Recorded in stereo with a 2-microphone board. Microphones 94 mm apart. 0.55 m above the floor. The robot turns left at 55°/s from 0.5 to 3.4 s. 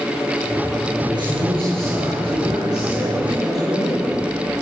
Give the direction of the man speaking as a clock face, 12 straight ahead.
2 o'clock.